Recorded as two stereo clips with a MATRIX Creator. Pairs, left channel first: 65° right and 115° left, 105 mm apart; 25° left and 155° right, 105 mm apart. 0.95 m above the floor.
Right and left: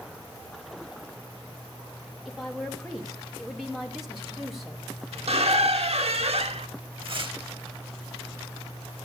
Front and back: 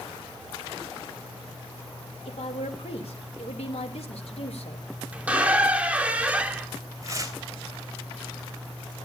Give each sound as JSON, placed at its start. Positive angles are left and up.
{"t": 2.2, "sound": "a woman speaking", "azimuth_deg": 25, "distance_m": 2.5}
{"t": 5.1, "sound": "a squeak", "azimuth_deg": 125, "distance_m": 1.1}
{"t": 7.0, "sound": "tearing paper", "azimuth_deg": 145, "distance_m": 3.5}